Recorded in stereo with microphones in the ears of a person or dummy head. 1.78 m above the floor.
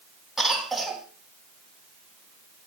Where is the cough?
5° right (ahead or behind), 2.5 m.